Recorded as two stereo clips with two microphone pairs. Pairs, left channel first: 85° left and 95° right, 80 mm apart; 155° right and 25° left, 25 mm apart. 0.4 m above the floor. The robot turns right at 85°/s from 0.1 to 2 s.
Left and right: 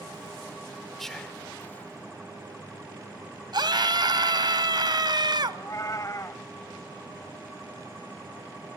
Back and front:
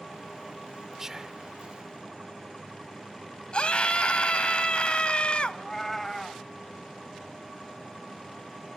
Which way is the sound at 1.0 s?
5° left.